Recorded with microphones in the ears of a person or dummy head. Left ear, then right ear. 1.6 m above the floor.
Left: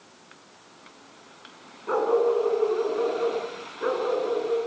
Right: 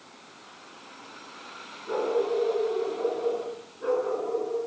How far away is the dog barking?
About 9 m.